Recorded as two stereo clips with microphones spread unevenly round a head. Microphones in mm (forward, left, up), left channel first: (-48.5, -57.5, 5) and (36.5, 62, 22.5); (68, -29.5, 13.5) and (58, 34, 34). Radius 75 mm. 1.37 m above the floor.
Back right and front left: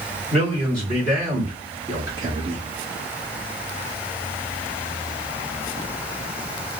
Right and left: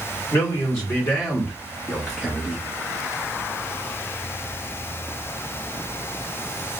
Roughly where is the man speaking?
Ahead right.